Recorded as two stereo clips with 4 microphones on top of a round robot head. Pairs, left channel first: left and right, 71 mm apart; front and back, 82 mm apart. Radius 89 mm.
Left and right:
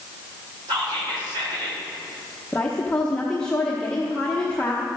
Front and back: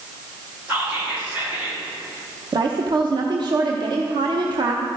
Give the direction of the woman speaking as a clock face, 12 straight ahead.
6 o'clock.